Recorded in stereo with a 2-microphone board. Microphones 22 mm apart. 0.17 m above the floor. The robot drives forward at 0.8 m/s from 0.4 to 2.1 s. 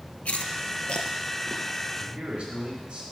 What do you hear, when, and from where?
0.2 s chewing: 80° left, 0.5 m; by 1.7 s 25° left (ahead or behind), 1.1 m
2.0 s a man speaking: 50° right (ahead or behind), 2.5 m; by 3.0 s 45° right (ahead or behind), 2.5 m